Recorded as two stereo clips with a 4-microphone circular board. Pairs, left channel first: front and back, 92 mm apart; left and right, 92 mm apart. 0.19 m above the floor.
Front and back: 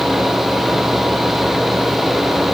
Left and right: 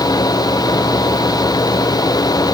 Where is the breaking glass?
No breaking glass in this recording.